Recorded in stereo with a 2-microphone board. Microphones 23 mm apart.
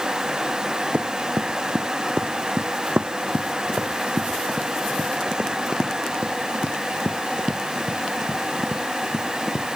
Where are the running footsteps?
75° right (ahead or behind); by 9.8 s 10° right (ahead or behind).